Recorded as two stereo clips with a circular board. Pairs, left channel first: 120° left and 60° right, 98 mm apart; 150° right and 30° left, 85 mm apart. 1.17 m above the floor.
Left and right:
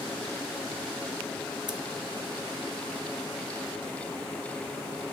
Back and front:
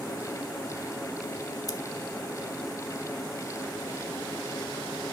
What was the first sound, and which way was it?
Scissors, 100° right.